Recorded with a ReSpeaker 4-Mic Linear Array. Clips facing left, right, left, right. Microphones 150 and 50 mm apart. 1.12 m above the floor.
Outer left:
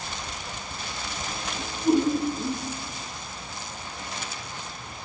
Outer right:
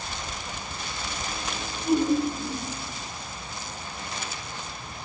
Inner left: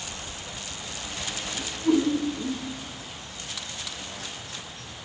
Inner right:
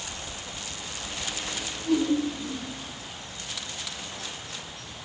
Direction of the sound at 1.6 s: 65° left (ahead or behind).